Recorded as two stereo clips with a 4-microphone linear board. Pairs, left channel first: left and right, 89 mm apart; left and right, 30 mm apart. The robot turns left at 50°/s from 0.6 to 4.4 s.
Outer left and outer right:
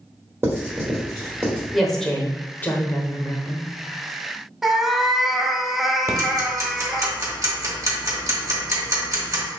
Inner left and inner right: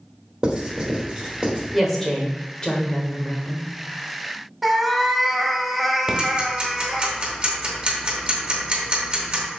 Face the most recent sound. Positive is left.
turn(degrees=-40)  # may be behind; listen again after turning